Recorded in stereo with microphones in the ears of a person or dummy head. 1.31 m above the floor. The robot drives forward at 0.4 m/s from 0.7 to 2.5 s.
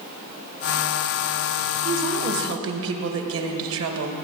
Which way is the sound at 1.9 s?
70° right (ahead or behind).